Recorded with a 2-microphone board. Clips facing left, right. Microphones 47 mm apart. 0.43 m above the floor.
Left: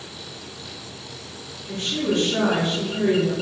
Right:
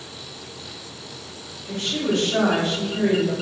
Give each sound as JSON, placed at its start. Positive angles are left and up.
{"t": 1.7, "sound": "a woman speaking", "side_deg": -60, "distance_m": 1.6}